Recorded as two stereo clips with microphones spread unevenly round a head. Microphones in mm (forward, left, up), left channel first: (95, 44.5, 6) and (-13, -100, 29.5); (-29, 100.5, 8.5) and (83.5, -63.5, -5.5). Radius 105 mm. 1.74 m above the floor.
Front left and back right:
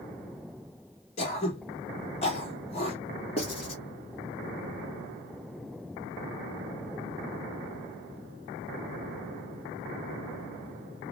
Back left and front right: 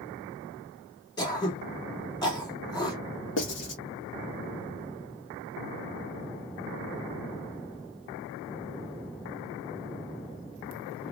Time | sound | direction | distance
1.2 | throat clearing | 90° left | 1.4 m
3.4 | writing | 120° left | 1.6 m